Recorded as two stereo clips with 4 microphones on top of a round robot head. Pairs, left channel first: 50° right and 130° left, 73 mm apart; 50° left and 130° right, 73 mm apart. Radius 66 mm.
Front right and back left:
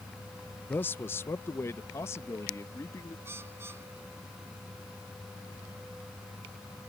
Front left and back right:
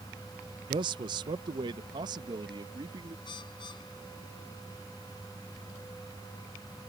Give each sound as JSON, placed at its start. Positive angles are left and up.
{"t": 0.7, "sound": "a man speaking", "azimuth_deg": -115}
{"t": 3.2, "sound": "a bird", "azimuth_deg": 70}